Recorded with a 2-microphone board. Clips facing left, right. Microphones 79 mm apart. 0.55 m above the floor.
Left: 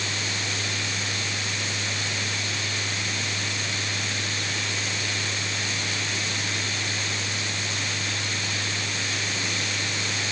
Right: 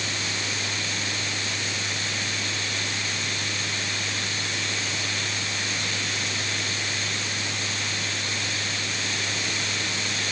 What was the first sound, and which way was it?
Only background noise.